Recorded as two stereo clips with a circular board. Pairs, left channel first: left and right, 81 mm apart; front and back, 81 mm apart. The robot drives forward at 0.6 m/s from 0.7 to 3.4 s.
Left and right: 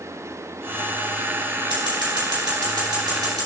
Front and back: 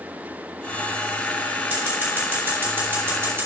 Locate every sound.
1.7 s scissors: 105° right, 3.5 m; by 3.5 s 115° right, 4 m